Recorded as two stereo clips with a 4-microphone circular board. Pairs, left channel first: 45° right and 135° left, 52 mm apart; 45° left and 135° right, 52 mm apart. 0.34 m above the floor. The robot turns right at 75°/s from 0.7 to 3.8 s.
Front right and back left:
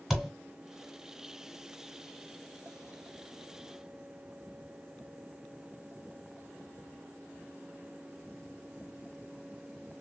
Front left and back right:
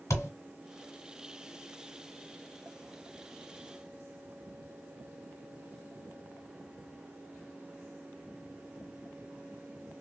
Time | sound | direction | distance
0.1 | a thud | 50° left | 1.2 m